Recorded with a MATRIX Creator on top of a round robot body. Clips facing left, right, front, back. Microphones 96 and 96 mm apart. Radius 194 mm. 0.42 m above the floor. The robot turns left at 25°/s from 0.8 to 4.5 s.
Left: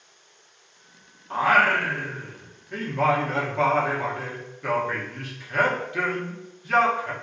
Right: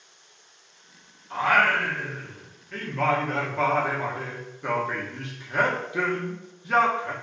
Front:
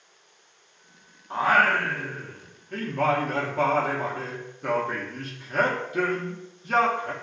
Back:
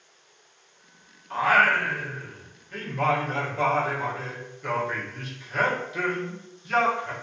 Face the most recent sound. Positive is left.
turn(degrees=-25)